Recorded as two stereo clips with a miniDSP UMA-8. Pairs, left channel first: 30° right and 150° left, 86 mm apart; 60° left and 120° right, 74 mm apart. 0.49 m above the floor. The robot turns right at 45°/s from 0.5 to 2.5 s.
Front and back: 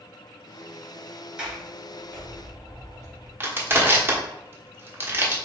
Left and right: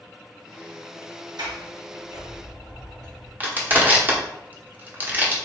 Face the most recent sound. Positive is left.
turn(degrees=-165)